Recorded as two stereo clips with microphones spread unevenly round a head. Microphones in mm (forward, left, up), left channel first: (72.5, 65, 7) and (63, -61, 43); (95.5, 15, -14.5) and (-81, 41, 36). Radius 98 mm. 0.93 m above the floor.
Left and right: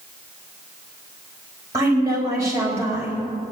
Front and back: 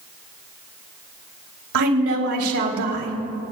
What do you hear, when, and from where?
1.7 s a woman speaking: 170° right, 3.5 m